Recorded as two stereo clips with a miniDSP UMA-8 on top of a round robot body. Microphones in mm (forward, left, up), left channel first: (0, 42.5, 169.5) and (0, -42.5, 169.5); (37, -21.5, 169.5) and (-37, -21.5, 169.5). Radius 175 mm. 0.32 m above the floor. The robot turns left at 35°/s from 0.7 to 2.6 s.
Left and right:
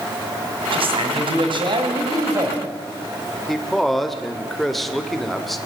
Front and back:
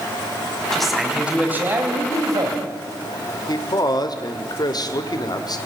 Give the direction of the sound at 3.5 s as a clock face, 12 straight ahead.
12 o'clock.